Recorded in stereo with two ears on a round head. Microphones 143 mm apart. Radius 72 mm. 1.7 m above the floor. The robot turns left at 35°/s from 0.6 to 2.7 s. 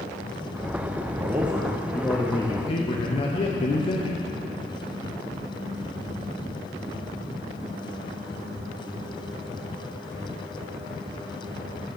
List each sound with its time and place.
1.1 s a man speaking: 160° right, 0.7 m; by 4.2 s 145° left, 0.7 m